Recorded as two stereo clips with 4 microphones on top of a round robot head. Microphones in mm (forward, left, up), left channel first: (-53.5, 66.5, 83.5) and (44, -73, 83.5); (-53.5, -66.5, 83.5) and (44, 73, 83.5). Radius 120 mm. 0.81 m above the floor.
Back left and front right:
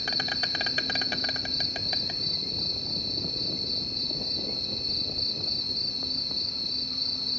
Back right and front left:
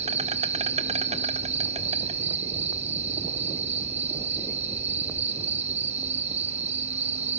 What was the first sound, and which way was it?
An insect, 35° left.